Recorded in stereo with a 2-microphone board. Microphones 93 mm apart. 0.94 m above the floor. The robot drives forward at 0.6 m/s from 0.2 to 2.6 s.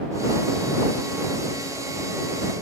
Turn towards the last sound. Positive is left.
No sound to turn to.